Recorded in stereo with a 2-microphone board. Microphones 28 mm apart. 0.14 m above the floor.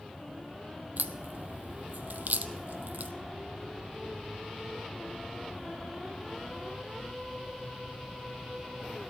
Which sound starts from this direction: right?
A crack, at 1.0 s.